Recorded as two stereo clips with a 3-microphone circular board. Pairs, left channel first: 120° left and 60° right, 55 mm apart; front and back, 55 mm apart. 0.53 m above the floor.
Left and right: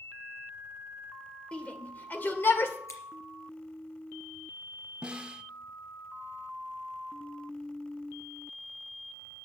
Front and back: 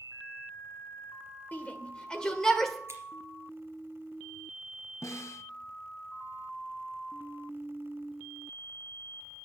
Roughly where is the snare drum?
Ahead.